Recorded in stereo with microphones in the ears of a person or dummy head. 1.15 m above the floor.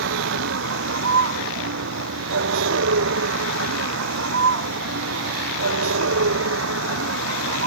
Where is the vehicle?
70° right (ahead or behind); by 7.7 s 85° right.